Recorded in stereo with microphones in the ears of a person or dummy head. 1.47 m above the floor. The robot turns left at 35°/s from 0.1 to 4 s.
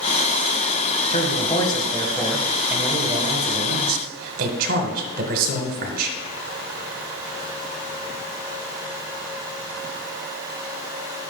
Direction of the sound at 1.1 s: 45° left.